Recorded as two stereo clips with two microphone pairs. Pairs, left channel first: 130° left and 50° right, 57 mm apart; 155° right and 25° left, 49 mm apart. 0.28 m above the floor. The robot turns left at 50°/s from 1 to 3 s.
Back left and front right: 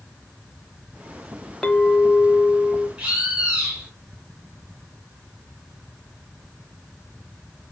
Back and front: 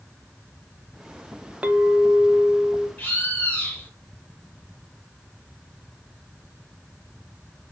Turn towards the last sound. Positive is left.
turn(degrees=-115)